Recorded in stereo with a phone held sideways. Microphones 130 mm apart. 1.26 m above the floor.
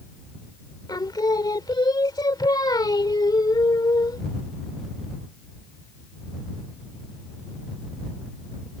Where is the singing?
35° left (ahead or behind).